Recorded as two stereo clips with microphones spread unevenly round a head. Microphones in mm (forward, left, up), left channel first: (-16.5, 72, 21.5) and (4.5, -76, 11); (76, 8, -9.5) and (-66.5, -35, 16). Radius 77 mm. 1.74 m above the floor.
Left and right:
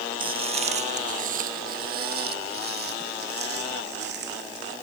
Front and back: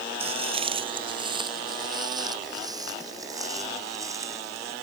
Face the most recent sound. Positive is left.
turn(degrees=-95)